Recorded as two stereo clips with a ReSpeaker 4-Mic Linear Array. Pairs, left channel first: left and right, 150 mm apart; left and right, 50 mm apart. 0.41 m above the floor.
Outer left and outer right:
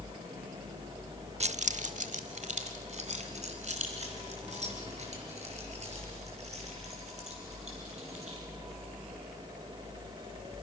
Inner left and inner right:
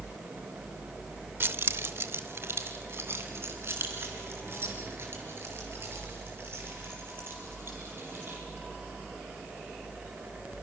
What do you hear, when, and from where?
1.4 s keys jangling: 45° right (ahead or behind), 0.6 m; by 8.4 s 50° right (ahead or behind), 8 m